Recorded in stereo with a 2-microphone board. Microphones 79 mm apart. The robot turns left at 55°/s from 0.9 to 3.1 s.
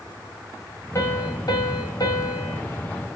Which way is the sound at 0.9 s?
135° left.